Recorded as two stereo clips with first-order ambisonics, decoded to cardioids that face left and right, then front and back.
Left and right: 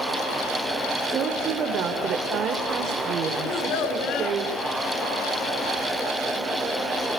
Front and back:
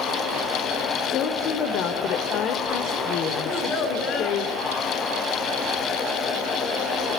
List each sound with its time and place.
1.1 s a woman speaking: 40° right, 2.5 m
3.4 s a child speaking: 55° left, 5 m